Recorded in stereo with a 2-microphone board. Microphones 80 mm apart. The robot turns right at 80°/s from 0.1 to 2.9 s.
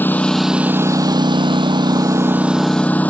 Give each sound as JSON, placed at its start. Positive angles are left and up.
{"t": 0.0, "sound": "a lawn mower", "azimuth_deg": 155}